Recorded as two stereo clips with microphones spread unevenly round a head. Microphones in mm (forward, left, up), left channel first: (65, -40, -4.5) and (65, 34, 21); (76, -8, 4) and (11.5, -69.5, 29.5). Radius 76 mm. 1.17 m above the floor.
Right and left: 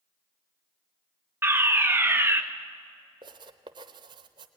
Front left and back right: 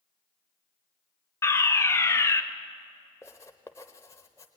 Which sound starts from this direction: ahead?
A fire alarm, at 1.4 s.